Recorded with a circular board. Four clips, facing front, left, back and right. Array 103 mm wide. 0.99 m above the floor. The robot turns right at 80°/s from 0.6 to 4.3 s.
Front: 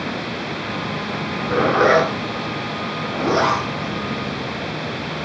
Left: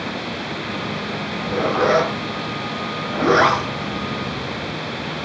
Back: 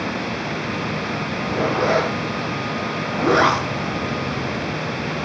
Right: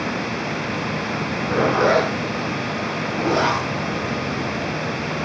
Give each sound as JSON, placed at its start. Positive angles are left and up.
{"t": 1.2, "sound": "a zipper", "azimuth_deg": -55, "distance_m": 8.5}